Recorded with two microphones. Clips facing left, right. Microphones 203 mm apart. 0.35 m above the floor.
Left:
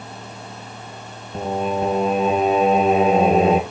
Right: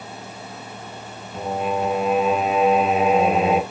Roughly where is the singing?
Left.